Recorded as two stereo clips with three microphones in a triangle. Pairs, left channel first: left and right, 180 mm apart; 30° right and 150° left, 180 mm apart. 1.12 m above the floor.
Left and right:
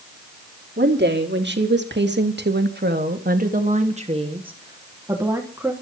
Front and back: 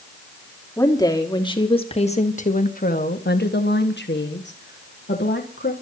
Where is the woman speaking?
105° right, 2.5 m; by 5.7 s 10° right, 3 m.